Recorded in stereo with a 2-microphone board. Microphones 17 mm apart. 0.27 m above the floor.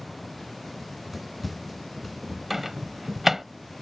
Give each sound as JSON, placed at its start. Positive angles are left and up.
{"t": 0.8, "sound": "running footsteps", "side_deg": -5}
{"t": 2.5, "sound": "a microwave", "side_deg": -15}